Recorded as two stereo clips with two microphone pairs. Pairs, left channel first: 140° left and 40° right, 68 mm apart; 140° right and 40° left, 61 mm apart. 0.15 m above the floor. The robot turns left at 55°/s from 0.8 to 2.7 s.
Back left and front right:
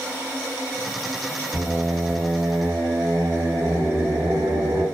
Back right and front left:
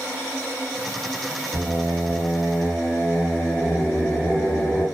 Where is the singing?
15° left, 1.1 m; by 4.8 s 45° right, 1.1 m.